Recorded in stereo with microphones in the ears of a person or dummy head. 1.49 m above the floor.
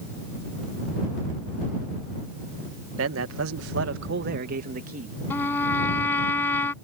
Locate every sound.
3.0 s a man speaking: 80° right; by 5.2 s 45° right (ahead or behind)
5.3 s a trumpet: 15° left (ahead or behind)